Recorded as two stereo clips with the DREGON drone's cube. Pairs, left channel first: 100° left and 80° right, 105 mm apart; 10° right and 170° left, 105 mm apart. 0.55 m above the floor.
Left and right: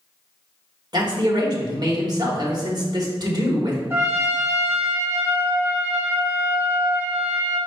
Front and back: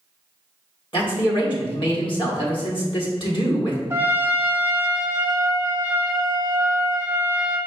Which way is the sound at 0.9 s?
40° right.